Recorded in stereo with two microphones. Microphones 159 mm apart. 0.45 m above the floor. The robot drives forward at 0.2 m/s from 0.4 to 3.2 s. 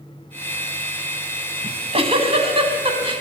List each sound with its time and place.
1.6 s a giggle: 40° right (ahead or behind), 1.3 m; by 3.2 s 30° right (ahead or behind), 1.6 m